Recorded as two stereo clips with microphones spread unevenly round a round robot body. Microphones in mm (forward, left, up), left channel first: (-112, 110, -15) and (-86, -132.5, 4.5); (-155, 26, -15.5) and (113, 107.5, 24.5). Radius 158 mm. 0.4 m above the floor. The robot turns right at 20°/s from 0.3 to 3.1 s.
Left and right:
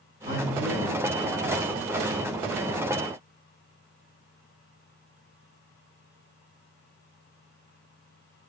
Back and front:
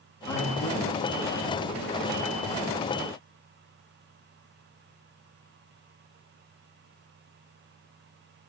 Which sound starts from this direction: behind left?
A man speaking, at 0.3 s.